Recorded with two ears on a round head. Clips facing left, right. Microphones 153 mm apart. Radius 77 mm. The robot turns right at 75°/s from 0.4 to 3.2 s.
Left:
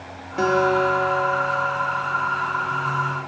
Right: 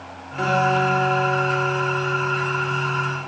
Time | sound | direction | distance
0.4 | a guitar | 45° left | 2.5 m